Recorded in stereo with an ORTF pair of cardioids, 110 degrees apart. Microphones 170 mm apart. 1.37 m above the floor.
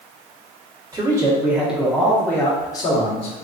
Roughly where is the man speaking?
Ahead right.